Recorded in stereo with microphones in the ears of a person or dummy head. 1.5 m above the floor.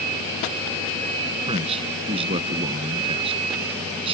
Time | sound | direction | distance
1.5 | a man speaking | 25° right (ahead or behind) | ?